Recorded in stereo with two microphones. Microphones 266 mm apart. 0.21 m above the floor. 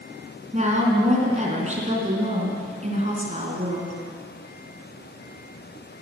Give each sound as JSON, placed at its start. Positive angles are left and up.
{"t": 0.5, "sound": "a woman speaking", "side_deg": -25, "distance_m": 2.5}